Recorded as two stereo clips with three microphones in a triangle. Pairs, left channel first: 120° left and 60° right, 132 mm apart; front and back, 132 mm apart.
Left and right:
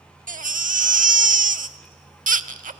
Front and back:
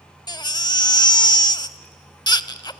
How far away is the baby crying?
About 0.5 m.